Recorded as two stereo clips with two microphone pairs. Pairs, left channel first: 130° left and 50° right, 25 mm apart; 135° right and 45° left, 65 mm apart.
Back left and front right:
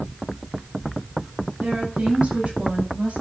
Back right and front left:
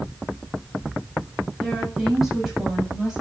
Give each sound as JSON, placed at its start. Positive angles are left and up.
{"t": 1.6, "sound": "a woman speaking", "azimuth_deg": -45, "distance_m": 8.5}